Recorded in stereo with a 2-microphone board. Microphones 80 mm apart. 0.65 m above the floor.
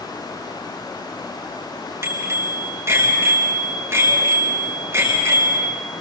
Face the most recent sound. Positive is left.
turn(degrees=-35)  # may be behind; listen again after turning